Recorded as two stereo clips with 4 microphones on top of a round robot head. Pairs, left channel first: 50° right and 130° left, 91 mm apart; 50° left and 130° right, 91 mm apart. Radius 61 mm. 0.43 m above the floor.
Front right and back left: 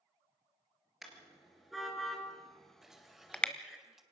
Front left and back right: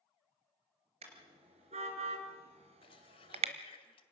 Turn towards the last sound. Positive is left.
turn(degrees=45)